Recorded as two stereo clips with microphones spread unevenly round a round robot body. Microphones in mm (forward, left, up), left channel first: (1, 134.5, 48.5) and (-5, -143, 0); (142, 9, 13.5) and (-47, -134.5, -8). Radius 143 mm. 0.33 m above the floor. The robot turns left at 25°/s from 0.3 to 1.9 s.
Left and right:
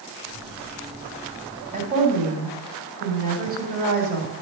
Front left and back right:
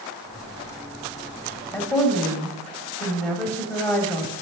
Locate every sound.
1.7 s a woman speaking: 45° right, 1.8 m; by 4.3 s 50° right, 1.8 m